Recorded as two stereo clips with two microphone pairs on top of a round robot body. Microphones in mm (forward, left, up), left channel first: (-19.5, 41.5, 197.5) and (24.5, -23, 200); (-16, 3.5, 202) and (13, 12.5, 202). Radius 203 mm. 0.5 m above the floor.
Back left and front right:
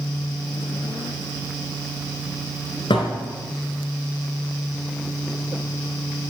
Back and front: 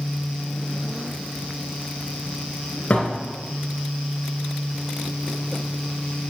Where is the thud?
140° left, 3 m.